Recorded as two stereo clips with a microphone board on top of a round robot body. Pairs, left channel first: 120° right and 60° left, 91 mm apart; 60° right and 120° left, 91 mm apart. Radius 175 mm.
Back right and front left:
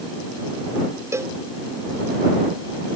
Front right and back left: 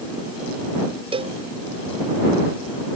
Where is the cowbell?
120° left.